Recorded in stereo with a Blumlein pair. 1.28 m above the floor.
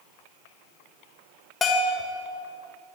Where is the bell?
15° left, 1.3 m.